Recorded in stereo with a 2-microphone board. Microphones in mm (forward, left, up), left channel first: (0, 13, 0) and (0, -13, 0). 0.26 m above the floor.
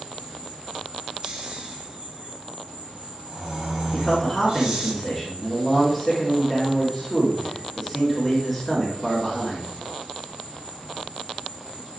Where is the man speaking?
5° left (ahead or behind), 3.5 m.